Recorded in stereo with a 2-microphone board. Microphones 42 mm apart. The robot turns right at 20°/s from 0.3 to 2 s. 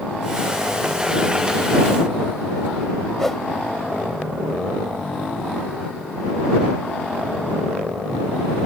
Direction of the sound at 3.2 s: 10° left (ahead or behind).